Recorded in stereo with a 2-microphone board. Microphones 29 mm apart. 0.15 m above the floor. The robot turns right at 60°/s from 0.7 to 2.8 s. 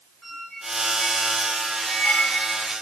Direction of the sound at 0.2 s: Straight ahead.